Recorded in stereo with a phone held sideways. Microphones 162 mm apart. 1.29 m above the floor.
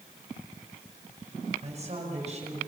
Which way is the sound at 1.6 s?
40° right (ahead or behind).